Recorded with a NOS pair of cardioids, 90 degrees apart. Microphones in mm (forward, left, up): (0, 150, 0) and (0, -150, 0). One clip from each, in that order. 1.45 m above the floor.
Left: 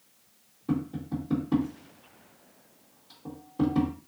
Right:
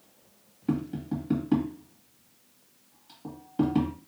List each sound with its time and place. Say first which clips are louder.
0.7 s tapping: right 1 dB; 55° right, 1.6 m